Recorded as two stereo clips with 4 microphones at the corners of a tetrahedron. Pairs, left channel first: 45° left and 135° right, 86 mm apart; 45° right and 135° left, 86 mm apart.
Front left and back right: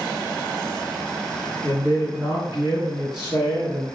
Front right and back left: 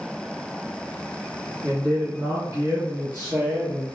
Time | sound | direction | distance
1.6 | a man speaking | 110° left | 2.5 m